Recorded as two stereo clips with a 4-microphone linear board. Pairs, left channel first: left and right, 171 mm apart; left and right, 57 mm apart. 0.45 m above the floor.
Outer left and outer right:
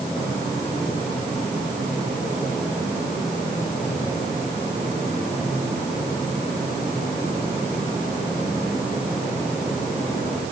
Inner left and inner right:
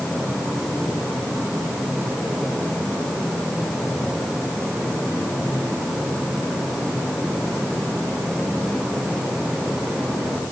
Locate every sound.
Only background noise.